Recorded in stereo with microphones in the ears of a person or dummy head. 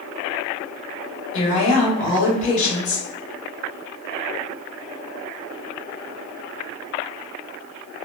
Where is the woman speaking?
40° left (ahead or behind), 1.1 m.